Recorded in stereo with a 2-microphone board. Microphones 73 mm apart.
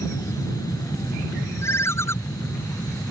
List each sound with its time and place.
0.0 s an aircraft: 55° left (ahead or behind)
1.6 s a ringtone: 40° left (ahead or behind)